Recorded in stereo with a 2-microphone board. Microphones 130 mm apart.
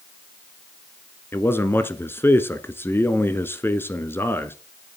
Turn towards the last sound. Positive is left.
turn(degrees=20)  # may be behind; listen again after turning